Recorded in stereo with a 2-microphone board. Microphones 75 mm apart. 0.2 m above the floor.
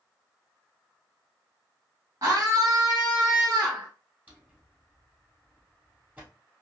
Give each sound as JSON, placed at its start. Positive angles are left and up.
{"t": 2.2, "sound": "a scream", "side_deg": -45, "distance_m": 1.6}
{"t": 4.3, "sound": "a drawer", "side_deg": -20, "distance_m": 2.5}